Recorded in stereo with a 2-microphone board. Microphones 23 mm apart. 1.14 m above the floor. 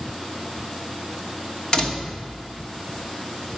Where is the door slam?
30° left (ahead or behind), 2 m.